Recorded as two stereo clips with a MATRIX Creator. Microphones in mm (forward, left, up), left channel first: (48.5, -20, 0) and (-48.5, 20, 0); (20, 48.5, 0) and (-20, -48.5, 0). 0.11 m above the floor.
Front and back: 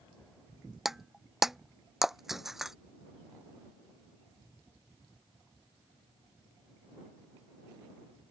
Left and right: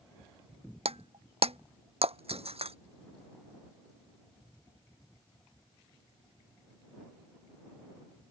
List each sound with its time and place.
0.8 s breaking glass: 115° right